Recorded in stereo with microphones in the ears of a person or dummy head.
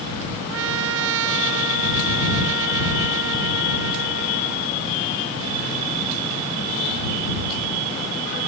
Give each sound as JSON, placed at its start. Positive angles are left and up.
{"t": 0.5, "sound": "a trumpet", "side_deg": -75}